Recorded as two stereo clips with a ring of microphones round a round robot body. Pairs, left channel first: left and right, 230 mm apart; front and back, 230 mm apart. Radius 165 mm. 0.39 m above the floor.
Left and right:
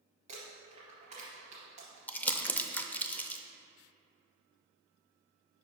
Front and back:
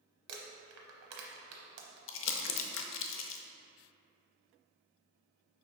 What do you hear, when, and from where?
0.3 s crumpling: 160° right, 0.9 m
2.1 s crumpling: 5° left, 0.6 m